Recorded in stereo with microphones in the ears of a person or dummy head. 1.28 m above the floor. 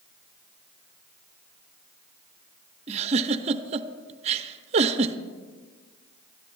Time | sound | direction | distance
2.9 | a giggle | 30° right (ahead or behind) | 0.5 m